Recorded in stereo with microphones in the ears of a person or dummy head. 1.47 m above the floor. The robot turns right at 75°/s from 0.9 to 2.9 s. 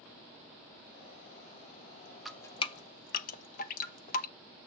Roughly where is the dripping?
Centre.